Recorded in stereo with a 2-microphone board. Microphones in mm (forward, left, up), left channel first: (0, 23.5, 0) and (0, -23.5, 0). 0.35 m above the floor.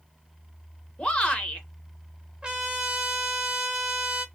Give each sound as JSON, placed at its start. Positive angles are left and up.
{"t": 1.0, "sound": "a shout", "side_deg": 20, "distance_m": 0.8}
{"t": 2.4, "sound": "a trumpet", "side_deg": -20, "distance_m": 0.8}